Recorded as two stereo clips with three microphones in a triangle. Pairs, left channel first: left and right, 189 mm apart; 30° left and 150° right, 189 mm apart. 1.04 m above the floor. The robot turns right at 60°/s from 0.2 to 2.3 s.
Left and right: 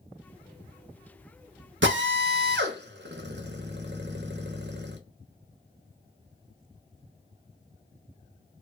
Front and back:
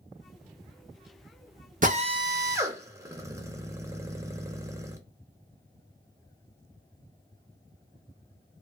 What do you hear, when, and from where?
1.8 s a drill: 105° right, 0.7 m; by 5.0 s 75° right, 0.7 m